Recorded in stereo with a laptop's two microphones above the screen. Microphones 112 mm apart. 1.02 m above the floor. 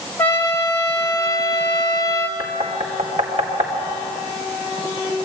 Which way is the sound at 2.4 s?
80° right.